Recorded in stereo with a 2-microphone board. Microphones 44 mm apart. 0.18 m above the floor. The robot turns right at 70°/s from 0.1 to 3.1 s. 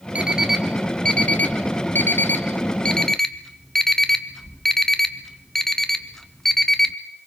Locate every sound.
0.1 s an alarm clock: 30° right (ahead or behind), 1.3 m; by 7.0 s 10° left (ahead or behind), 1.3 m